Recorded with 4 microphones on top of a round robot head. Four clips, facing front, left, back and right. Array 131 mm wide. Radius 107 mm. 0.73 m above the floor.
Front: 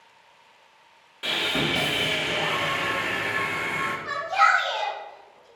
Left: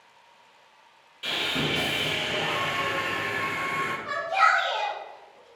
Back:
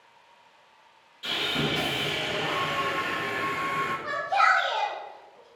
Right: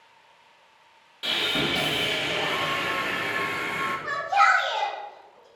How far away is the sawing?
About 0.7 m.